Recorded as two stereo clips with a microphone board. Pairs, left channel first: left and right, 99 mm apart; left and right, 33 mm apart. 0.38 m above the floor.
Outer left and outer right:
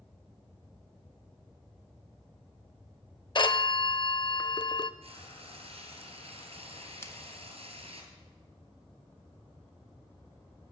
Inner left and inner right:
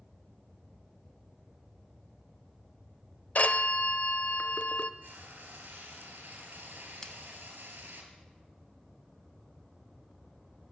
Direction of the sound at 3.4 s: 55° left (ahead or behind).